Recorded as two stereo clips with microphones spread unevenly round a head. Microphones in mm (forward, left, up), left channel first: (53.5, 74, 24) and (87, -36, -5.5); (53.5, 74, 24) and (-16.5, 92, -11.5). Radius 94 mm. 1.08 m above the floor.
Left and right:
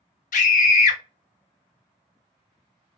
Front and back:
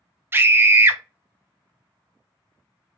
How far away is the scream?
About 0.6 m.